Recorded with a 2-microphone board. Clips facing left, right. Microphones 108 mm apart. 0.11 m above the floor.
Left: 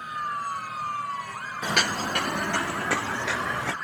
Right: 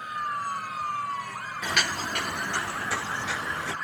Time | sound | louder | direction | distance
1.6 | footsteps | left 3 dB | 30° left (ahead or behind) | 0.5 m